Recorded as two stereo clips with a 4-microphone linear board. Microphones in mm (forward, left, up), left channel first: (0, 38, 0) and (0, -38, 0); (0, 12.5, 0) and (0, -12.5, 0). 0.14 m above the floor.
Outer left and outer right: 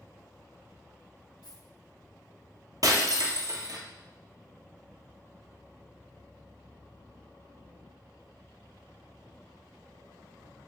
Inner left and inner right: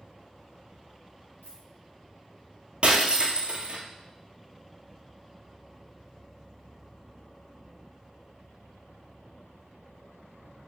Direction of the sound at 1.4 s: 85° left.